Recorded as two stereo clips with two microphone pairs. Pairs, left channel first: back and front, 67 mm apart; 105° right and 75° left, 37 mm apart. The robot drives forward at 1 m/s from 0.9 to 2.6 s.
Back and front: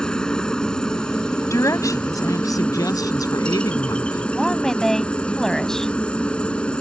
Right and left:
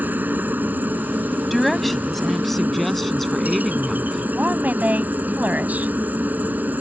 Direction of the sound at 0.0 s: 100° left.